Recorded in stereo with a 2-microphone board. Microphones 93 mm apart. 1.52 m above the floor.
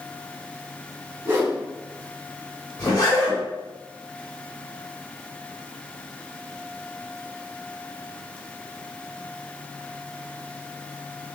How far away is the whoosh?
About 0.9 m.